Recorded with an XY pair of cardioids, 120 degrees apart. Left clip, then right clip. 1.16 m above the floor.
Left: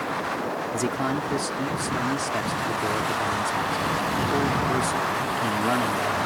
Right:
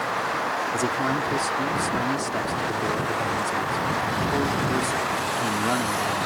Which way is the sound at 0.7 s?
5° left.